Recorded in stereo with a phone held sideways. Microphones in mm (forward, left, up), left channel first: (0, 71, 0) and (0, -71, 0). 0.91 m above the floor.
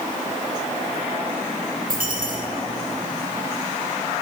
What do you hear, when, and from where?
1.9 s a dropped coin: 80° right, 4.5 m